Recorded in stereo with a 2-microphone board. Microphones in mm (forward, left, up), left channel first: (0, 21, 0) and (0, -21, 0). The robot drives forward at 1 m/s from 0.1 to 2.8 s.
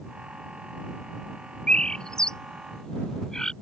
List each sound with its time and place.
1.7 s a bird: 25° left (ahead or behind); by 3.5 s 15° left (ahead or behind)